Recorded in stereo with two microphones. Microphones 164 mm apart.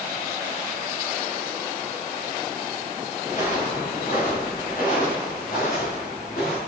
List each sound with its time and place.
3.2 s footsteps: 50° left (ahead or behind), 7.5 m; by 6.6 s 60° left (ahead or behind), 9.5 m